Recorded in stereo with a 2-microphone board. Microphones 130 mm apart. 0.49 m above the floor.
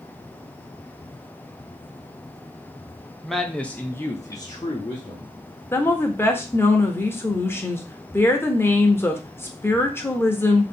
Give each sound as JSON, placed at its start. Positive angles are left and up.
{"t": 3.2, "sound": "a man speaking", "side_deg": 0, "distance_m": 0.8}
{"t": 5.7, "sound": "a woman speaking", "side_deg": 15, "distance_m": 1.0}